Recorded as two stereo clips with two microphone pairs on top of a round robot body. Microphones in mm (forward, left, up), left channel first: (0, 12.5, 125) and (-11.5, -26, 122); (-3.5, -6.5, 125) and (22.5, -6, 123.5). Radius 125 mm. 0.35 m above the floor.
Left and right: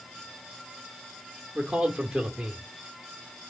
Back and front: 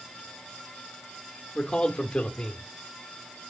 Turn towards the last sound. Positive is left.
turn(degrees=-170)